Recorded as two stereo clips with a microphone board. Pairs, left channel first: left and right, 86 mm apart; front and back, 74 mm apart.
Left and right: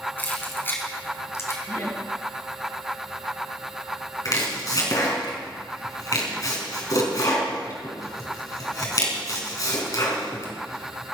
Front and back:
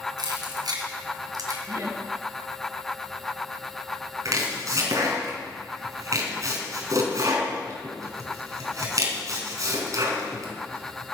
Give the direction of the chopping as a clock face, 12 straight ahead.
7 o'clock.